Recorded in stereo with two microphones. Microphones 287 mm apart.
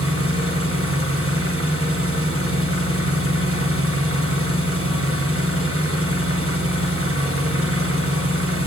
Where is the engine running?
50° right (ahead or behind), 1.2 m.